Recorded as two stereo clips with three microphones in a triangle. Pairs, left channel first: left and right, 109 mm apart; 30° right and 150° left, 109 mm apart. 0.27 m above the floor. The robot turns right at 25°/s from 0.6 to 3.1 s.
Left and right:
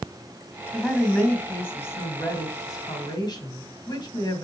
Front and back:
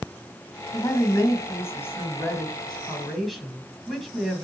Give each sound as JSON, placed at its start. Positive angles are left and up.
{"t": 0.7, "sound": "a woman speaking", "azimuth_deg": 0, "distance_m": 1.9}